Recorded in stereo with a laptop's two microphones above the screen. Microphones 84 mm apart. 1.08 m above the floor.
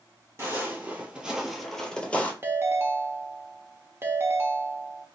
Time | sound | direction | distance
0.4 | footsteps | 35° right (ahead or behind) | 1.3 m
2.4 | a ringtone | 30° right (ahead or behind) | 0.7 m